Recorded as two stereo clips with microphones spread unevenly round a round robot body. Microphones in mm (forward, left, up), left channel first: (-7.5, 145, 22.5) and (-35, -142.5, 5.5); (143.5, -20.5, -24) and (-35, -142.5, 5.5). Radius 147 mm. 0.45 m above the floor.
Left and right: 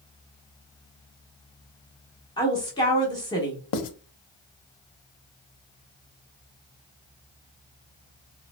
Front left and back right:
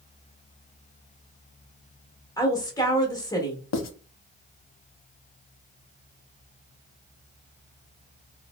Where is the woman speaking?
25° left, 0.8 m.